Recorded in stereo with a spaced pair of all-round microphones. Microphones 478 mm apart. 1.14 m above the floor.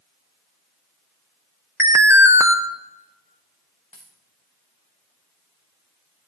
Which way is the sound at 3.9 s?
65° left (ahead or behind).